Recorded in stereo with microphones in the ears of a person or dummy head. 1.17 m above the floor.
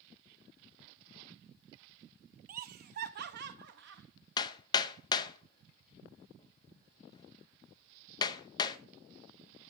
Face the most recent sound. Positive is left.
turn(degrees=25)  # may be behind; listen again after turning